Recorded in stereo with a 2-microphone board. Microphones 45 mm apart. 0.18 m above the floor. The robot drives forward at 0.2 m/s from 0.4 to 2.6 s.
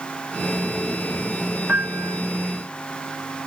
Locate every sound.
1.7 s a piano: 40° right (ahead or behind), 0.8 m; by 2.2 s 35° right (ahead or behind), 0.8 m